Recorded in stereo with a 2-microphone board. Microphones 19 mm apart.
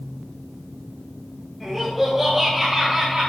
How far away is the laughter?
About 4 m.